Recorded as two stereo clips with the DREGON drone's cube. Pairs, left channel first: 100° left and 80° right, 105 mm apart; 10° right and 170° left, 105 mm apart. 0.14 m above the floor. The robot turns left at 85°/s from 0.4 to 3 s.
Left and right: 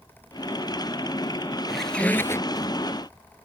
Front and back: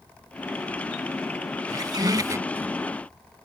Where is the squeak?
165° right; by 2.7 s 110° left.